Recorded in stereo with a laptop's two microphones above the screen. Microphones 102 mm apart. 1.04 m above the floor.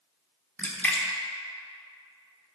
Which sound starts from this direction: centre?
A splash, at 0.6 s.